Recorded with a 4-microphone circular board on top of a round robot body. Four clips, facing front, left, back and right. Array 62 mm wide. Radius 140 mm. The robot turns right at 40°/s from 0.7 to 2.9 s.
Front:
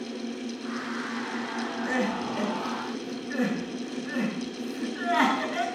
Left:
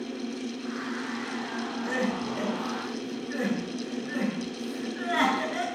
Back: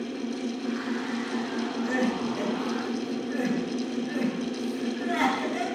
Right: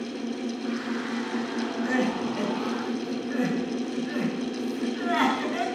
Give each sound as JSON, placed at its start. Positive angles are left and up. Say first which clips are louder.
{"t": 1.8, "sound": "crying", "louder": "right 3 dB, back 1 dB", "azimuth_deg": -85, "distance_m": 8.0}